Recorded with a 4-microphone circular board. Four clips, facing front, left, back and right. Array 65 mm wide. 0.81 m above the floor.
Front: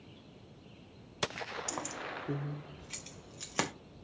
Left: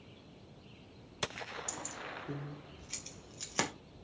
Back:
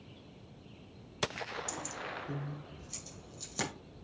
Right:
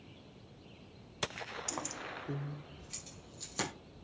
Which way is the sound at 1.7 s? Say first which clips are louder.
Right 2 dB, front 1 dB; 45° right.